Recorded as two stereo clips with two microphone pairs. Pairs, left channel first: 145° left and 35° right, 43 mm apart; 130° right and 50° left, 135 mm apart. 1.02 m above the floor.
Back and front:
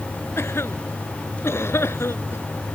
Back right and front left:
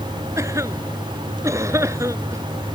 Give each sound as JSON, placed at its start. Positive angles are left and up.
{"t": 0.4, "sound": "a cough", "azimuth_deg": 120}